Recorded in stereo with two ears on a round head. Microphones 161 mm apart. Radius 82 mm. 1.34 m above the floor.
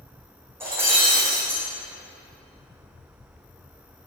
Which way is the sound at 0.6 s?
15° right (ahead or behind).